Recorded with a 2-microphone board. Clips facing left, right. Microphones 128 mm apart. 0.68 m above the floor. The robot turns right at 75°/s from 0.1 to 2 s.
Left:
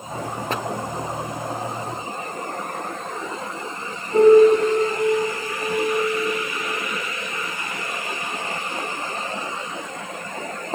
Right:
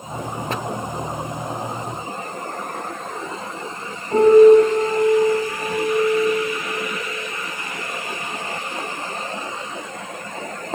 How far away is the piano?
About 2.5 m.